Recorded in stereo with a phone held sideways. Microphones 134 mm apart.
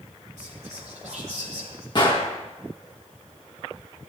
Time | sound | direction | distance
0.4 | whispering | 70° right (ahead or behind) | 5 m
1.9 | a gunshot | 35° left (ahead or behind) | 1.9 m